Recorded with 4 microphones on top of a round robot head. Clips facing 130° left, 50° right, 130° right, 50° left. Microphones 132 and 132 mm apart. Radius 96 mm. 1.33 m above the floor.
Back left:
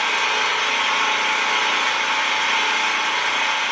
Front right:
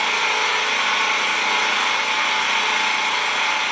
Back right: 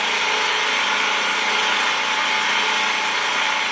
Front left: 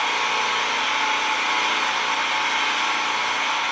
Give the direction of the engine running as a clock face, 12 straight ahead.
4 o'clock.